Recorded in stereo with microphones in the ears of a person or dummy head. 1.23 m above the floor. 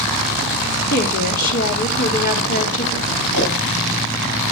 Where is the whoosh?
55° left (ahead or behind), 10 m.